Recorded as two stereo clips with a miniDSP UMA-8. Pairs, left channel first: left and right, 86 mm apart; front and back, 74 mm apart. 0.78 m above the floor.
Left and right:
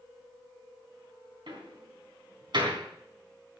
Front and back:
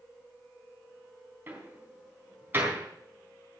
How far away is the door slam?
About 4 m.